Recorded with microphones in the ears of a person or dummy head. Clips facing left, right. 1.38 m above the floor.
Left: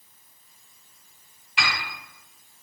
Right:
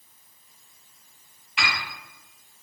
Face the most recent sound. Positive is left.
turn(degrees=30)  # may be behind; listen again after turning